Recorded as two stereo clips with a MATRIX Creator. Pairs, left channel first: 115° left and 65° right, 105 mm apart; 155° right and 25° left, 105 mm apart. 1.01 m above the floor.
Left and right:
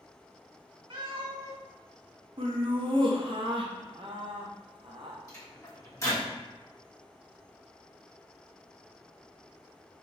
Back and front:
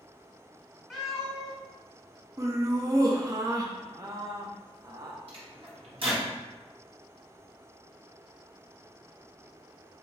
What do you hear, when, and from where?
0.9 s a cat meowing: 65° right, 1.3 m
2.4 s laughter: 35° right, 0.5 m
5.3 s a microwave: 50° left, 1.2 m